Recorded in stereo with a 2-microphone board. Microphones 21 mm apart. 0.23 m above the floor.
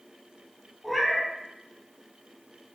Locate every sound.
0.8 s a cat meowing: 10° right (ahead or behind), 3 m